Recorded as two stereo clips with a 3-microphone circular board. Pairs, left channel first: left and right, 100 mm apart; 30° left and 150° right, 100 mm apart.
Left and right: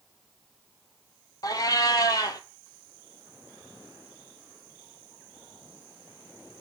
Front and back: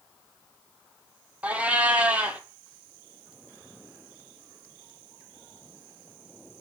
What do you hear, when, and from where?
1.4 s a cat meowing: 135° left, 0.7 m